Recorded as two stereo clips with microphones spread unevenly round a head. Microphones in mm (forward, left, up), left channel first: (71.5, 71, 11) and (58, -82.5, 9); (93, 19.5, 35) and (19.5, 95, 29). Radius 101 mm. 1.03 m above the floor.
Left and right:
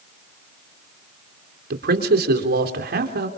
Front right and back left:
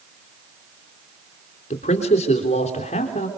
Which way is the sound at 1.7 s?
85° right.